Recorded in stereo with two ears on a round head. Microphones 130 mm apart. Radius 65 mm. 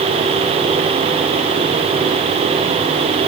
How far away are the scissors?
I don't hear scissors.